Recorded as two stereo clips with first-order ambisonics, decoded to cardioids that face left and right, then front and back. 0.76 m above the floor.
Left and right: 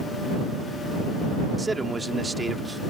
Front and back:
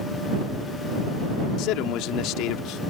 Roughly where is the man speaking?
Ahead.